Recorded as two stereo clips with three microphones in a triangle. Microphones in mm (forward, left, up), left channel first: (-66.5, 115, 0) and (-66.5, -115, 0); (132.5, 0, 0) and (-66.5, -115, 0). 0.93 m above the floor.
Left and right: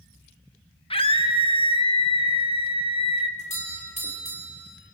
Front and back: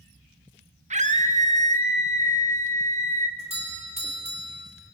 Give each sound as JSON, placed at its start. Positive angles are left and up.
{"t": 0.9, "sound": "a scream", "azimuth_deg": 155, "distance_m": 1.5}
{"t": 3.4, "sound": "a doorbell", "azimuth_deg": 150, "distance_m": 3.0}